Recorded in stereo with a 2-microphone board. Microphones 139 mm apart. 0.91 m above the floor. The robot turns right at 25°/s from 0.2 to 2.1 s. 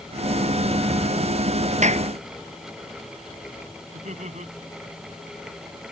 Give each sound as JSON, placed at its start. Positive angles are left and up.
{"t": 1.8, "sound": "a clap", "side_deg": -60}
{"t": 3.9, "sound": "laughter", "side_deg": -65}